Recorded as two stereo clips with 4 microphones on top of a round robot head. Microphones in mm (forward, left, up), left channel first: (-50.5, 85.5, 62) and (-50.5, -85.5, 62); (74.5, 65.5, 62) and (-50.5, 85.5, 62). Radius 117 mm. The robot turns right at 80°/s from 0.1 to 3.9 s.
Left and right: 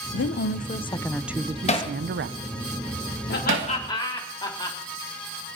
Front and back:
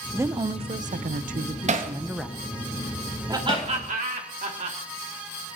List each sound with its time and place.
0.1 s a woman speaking: 95° left, 0.9 m; by 2.4 s 85° right, 0.9 m
1.7 s hammering: 140° left, 1.6 m; by 3.7 s 55° right, 1.6 m
3.3 s laughter: 105° left, 4 m; by 4.8 s 155° left, 4 m